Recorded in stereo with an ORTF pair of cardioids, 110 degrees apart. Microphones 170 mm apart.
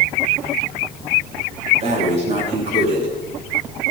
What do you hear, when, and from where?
1.8 s breathing: 40° right, 4.5 m